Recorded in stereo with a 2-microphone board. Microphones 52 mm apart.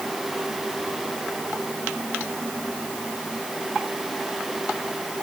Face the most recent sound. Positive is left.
No sound to turn to.